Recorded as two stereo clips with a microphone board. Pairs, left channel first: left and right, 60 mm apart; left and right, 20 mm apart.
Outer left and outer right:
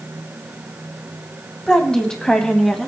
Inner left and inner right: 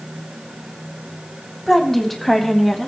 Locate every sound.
1.7 s a woman speaking: 10° left (ahead or behind), 1.2 m; by 2.9 s 5° left (ahead or behind), 1.4 m